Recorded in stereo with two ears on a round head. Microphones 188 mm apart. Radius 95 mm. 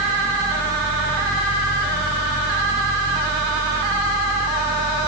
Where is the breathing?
I don't hear breathing.